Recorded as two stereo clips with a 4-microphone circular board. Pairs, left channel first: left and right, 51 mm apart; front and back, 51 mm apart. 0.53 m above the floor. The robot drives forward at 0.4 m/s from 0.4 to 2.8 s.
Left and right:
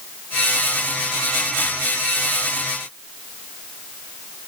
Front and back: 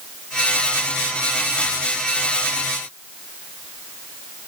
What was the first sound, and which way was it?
Only background noise.